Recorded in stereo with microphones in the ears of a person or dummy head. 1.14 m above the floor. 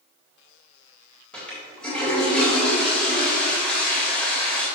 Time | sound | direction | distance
1.3 | a toilet flushing | 5° left (ahead or behind) | 3.5 m